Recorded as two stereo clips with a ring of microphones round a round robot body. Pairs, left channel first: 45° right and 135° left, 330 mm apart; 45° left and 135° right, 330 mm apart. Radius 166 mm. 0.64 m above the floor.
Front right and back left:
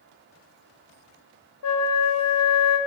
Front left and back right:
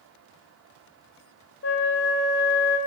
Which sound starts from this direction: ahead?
A flute, at 1.6 s.